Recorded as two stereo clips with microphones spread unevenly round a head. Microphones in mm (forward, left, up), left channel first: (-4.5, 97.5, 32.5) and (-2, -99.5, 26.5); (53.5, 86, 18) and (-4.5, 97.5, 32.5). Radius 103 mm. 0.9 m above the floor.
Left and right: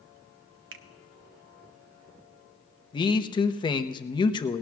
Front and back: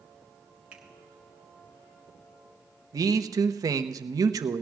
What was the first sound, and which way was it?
A finger snap, 110° right.